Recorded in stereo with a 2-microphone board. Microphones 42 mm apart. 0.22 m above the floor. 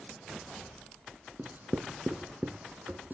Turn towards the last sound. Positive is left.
turn(degrees=-45)  # may be behind; listen again after turning